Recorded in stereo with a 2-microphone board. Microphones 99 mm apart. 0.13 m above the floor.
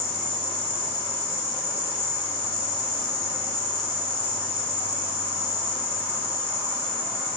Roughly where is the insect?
Right.